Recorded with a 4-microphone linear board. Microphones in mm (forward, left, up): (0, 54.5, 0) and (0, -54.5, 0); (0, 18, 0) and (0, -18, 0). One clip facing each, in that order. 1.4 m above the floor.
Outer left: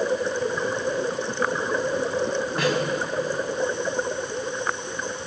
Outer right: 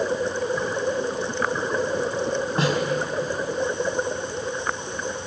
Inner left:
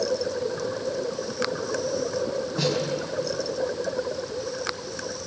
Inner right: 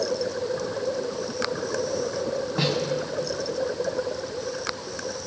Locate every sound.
2.6 s a snare drum: 35° right (ahead or behind), 4.5 m